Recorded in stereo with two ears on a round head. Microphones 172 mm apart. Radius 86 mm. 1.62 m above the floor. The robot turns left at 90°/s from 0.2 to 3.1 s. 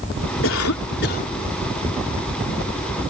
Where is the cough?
110° left; by 1.3 s 30° left.